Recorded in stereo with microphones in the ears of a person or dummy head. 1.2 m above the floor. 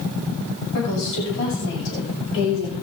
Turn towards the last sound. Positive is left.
turn(degrees=75)  # may be behind; listen again after turning